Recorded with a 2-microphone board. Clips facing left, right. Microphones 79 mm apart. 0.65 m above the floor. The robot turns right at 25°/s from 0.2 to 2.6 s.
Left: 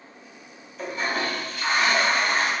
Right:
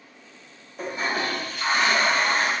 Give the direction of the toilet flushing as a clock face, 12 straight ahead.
4 o'clock.